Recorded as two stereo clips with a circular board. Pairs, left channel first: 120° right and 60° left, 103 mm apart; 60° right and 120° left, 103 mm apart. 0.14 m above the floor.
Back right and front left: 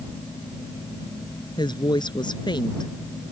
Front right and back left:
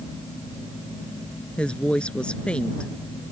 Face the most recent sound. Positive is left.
turn(degrees=-135)